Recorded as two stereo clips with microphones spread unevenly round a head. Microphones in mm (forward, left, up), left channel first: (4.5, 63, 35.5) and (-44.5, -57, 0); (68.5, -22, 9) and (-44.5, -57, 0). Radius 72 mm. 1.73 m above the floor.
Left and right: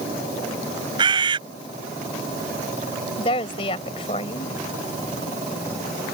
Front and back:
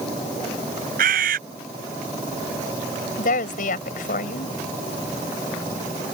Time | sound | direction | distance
1.0 | a bird | 170° right | ?
3.2 | a woman speaking | 15° left | ?